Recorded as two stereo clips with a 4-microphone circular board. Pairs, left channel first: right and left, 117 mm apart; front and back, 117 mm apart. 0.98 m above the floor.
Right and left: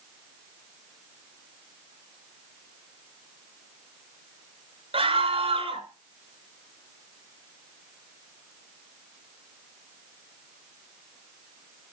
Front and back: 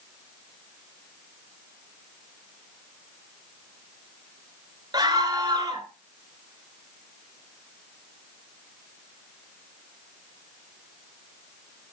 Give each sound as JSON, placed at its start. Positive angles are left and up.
{"t": 4.9, "sound": "a scream", "azimuth_deg": 125, "distance_m": 3.0}